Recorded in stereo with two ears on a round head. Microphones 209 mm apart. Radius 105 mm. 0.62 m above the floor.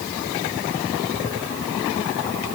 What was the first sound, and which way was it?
Only background noise.